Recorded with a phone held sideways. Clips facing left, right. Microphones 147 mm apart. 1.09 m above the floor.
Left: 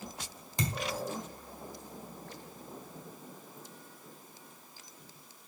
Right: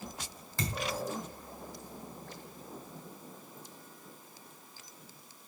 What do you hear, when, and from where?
0.6 s a thud: 20° left (ahead or behind), 1.6 m